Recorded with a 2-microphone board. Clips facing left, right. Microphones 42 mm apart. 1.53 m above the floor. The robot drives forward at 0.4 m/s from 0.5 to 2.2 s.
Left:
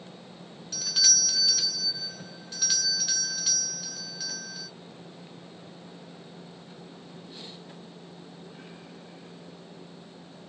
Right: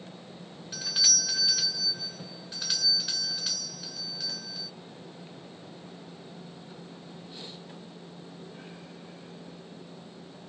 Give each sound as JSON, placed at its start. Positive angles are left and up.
{"t": 0.7, "sound": "a doorbell", "side_deg": -20, "distance_m": 0.5}